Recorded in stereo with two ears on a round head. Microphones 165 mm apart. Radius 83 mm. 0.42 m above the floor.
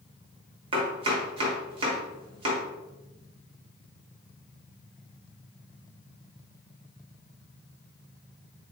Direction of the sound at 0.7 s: 30° right (ahead or behind).